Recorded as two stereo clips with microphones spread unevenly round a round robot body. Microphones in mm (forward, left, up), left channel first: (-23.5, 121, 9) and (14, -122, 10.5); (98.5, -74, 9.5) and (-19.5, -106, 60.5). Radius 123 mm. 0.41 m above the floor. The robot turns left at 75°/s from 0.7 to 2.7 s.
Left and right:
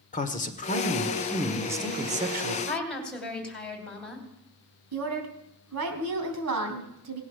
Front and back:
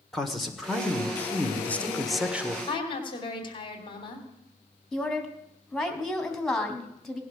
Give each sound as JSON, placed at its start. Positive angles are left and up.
{"t": 0.1, "sound": "a man speaking", "azimuth_deg": 65, "distance_m": 1.3}
{"t": 2.7, "sound": "a woman speaking", "azimuth_deg": 15, "distance_m": 3.0}
{"t": 4.9, "sound": "a woman speaking", "azimuth_deg": -65, "distance_m": 3.0}